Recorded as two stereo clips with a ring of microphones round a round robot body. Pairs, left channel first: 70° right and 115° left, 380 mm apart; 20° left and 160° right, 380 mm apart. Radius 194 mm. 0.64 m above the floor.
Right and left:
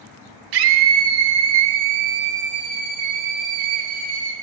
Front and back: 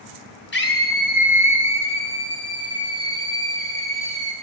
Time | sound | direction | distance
0.5 | a scream | 85° left | 1.7 m